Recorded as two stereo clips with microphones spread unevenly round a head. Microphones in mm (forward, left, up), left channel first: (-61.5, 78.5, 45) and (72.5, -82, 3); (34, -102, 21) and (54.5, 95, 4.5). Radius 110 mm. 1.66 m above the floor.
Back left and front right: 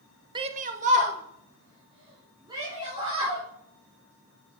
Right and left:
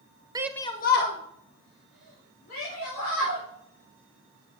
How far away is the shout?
About 0.6 m.